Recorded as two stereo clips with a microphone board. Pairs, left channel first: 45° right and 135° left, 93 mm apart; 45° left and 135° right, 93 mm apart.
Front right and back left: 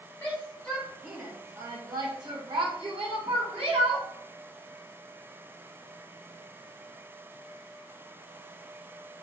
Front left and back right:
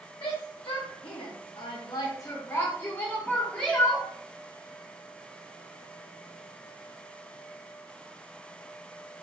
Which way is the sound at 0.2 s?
20° left.